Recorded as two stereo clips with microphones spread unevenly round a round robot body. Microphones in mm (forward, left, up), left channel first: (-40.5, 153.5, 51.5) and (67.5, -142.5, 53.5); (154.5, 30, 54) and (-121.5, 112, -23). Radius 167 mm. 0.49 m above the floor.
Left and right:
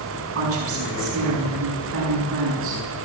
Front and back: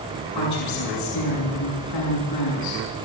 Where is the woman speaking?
25° right, 6 m.